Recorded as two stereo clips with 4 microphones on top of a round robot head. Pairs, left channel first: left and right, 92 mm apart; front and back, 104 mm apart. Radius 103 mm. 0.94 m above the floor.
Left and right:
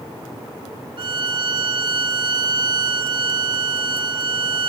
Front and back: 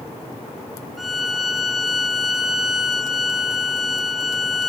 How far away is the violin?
About 1.4 m.